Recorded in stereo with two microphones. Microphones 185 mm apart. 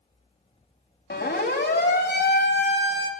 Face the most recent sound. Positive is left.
turn(degrees=65)  # may be behind; listen again after turning